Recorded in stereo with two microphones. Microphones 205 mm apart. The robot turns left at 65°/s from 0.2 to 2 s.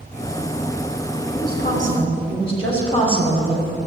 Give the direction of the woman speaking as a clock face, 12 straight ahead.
10 o'clock.